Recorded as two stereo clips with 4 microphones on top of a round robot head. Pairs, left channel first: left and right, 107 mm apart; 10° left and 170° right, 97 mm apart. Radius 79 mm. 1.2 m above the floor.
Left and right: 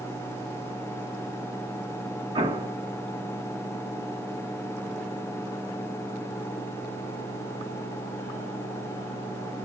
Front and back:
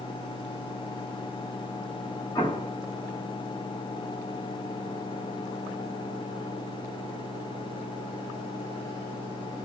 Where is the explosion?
55° right, 1.7 m.